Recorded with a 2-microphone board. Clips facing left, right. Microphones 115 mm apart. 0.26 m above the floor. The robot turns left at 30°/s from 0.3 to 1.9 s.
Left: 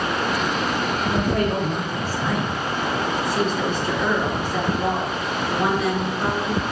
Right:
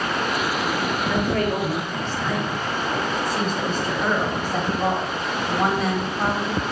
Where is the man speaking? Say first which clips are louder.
Left 1 dB; 30° left (ahead or behind), 2 m; by 2.6 s 10° left (ahead or behind), 2 m.